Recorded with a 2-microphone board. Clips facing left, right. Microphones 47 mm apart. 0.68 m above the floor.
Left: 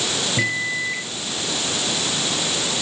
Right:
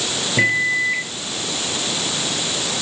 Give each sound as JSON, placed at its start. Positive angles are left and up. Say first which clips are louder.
{"t": 0.4, "sound": "a microwave", "louder": "right 8 dB", "side_deg": -20}